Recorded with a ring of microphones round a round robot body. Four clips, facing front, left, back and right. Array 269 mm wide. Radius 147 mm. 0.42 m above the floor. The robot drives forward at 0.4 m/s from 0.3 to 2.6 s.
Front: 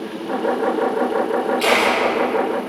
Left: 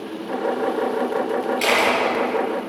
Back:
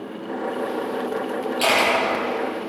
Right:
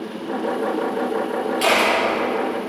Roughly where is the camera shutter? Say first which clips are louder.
Right 2 dB, even; behind left.